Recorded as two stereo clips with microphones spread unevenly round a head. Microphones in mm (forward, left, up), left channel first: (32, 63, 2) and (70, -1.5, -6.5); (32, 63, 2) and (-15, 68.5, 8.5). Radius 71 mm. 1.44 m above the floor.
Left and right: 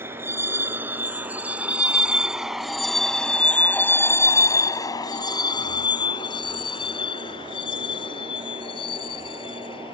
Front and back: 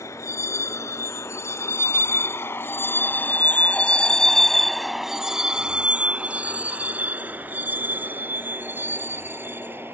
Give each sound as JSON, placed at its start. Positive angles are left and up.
{"t": 0.0, "sound": "a vehicle", "azimuth_deg": 0}